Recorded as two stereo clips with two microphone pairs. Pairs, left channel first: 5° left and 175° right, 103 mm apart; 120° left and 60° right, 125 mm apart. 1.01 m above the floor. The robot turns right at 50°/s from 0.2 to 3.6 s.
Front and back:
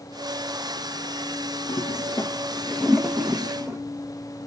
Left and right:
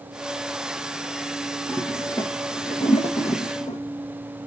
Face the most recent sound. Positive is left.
turn(degrees=130)